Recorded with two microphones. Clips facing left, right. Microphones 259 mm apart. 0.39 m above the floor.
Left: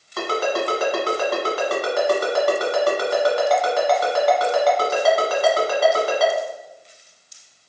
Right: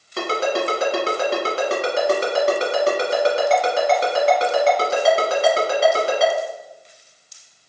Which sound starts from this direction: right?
A ringtone, at 0.2 s.